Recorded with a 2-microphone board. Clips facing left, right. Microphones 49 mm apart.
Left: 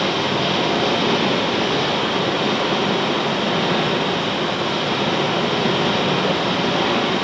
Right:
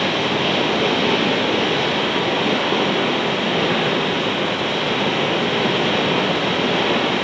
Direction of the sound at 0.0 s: 30° right (ahead or behind).